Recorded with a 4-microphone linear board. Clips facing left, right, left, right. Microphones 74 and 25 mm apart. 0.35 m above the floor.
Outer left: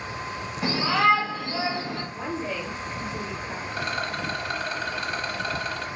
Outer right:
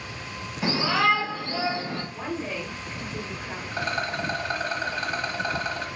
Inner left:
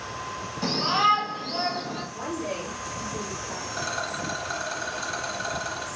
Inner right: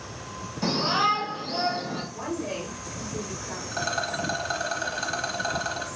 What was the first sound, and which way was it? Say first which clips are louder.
A shout: outer left 1 dB, inner left 1 dB; 5° right (ahead or behind).